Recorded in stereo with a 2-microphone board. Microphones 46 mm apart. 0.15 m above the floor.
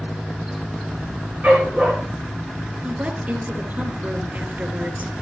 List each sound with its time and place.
1.4 s a dog barking: 30° right (ahead or behind), 8 m
2.8 s a woman speaking: 40° right (ahead or behind), 3 m